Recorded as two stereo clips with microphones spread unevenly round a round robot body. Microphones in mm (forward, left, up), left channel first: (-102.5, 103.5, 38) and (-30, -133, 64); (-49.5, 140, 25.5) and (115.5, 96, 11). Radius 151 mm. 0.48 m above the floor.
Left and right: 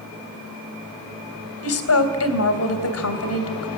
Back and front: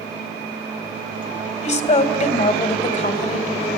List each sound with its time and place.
1.6 s a woman speaking: 115° left, 3 m